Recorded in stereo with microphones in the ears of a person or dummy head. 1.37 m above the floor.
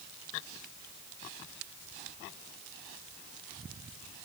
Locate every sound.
Only background noise.